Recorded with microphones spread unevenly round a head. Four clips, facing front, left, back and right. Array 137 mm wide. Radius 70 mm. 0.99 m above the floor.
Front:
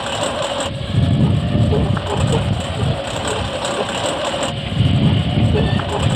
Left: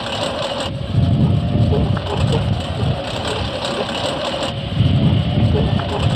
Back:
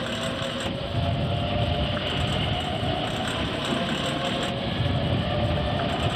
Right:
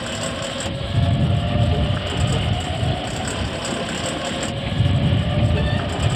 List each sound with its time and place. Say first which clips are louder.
0.0 s a lawn mower: left 5 dB, front 8 dB; 35° left